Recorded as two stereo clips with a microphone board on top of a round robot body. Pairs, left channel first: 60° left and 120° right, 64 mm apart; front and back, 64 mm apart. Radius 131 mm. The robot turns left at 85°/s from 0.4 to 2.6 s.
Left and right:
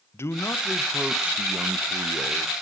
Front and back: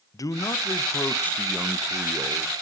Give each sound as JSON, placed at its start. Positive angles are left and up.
{"t": 0.1, "sound": "a man speaking", "azimuth_deg": 15, "distance_m": 0.8}